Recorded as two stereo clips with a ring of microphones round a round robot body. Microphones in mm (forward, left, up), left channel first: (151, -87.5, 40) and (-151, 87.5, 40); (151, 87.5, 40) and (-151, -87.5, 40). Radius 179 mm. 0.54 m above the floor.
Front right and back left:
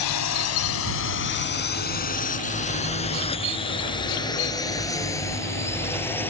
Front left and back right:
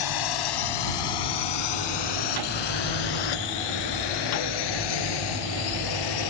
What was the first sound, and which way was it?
A drone, 10° left.